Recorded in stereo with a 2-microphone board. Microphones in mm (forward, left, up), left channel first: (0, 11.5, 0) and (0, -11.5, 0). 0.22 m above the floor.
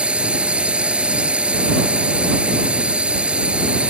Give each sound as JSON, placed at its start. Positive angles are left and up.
{"t": 0.0, "sound": "a drone", "side_deg": -55}